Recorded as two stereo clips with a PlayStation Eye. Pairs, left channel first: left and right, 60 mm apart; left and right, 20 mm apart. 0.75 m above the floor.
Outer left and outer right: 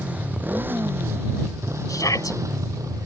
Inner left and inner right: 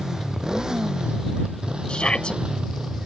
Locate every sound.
0.0 s a motorcycle: 25° right (ahead or behind); by 3.1 s 70° right (ahead or behind)
1.9 s a shout: 75° left (ahead or behind)